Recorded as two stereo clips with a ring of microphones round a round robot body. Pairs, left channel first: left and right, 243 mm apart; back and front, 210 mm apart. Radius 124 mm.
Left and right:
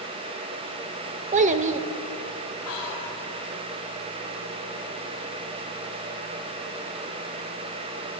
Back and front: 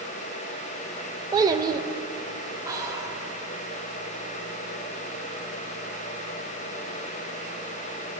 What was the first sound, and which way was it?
A child speaking, 60° right.